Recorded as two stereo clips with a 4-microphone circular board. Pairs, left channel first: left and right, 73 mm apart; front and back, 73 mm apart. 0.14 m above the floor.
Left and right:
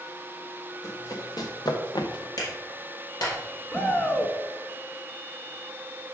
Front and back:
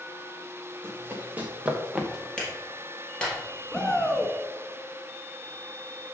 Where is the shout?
70° left, 1.5 m.